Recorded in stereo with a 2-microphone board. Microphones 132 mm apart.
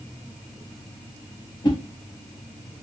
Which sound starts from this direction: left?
A whoosh, at 1.6 s.